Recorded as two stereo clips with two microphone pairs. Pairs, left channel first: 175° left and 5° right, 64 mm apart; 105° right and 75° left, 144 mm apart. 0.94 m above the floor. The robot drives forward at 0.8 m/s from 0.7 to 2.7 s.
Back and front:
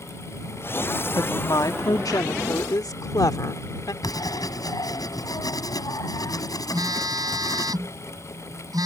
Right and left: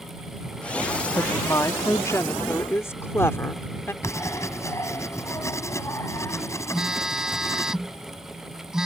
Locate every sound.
1.2 s a woman speaking: 170° right; by 3.9 s 175° right
4.0 s writing: 175° right
6.7 s a phone buzzing: 10° right